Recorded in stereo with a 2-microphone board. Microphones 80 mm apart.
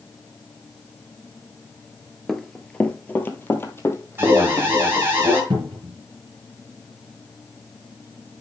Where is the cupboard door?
70° right (ahead or behind), 4.5 m.